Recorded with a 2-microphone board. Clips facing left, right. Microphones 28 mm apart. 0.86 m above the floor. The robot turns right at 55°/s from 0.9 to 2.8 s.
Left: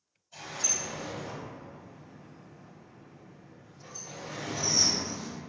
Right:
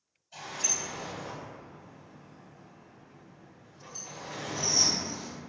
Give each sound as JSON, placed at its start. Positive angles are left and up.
{"t": 0.3, "sound": "a sliding door", "side_deg": -40, "distance_m": 1.4}